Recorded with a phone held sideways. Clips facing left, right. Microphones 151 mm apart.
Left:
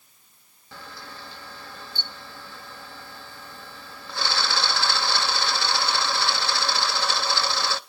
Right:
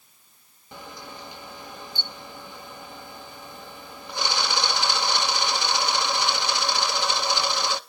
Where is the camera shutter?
15° right (ahead or behind), 0.6 m.